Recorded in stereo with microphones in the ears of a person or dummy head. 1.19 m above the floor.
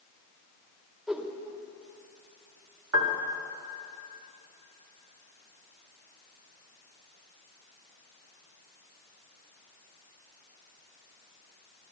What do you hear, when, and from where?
1.1 s a whoosh: centre (ahead or behind), 0.8 m
2.9 s a piano: 75° right (ahead or behind), 1.2 m